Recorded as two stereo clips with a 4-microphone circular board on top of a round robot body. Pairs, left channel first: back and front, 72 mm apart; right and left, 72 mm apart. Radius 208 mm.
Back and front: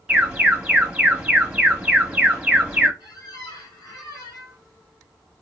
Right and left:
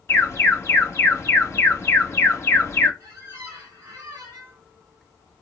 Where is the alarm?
70° right, 1.7 m.